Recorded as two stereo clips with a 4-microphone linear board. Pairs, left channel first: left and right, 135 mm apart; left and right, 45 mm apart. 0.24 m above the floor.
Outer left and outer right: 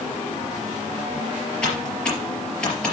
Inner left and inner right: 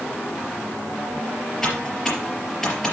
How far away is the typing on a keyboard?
About 4 m.